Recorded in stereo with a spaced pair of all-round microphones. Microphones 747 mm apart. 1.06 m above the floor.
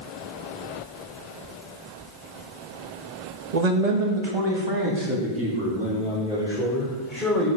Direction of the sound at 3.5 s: 65° right (ahead or behind).